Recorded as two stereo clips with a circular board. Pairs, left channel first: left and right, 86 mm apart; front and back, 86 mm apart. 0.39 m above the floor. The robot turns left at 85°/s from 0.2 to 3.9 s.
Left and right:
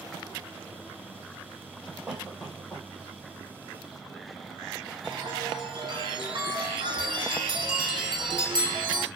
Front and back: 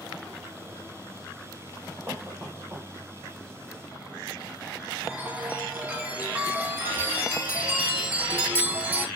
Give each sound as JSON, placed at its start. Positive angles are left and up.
{"t": 2.1, "sound": "a cough", "azimuth_deg": -155, "distance_m": 1.4}
{"t": 5.0, "sound": "a chime", "azimuth_deg": -110, "distance_m": 0.6}